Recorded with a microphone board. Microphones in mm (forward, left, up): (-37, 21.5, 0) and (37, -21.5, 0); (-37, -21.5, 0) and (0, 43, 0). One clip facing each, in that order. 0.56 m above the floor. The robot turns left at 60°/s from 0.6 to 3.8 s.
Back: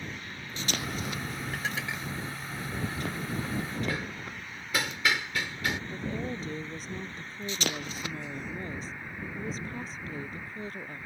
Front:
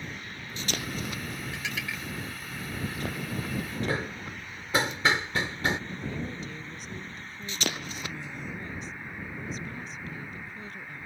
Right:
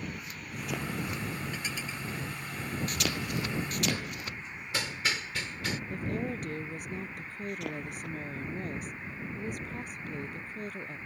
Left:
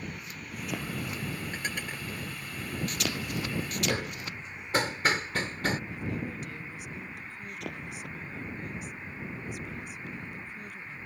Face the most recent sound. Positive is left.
turn(degrees=-160)